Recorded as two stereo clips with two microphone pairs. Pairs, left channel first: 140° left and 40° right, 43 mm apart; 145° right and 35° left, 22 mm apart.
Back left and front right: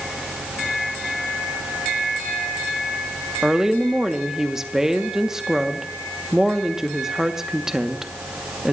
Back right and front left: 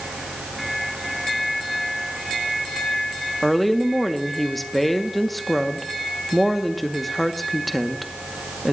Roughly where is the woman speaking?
Right.